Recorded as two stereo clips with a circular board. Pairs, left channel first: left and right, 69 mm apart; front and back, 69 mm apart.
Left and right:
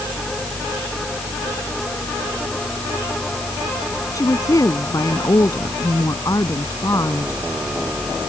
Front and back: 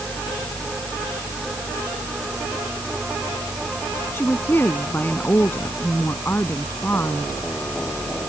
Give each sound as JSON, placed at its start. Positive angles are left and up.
{"t": 4.1, "sound": "a woman speaking", "azimuth_deg": 60}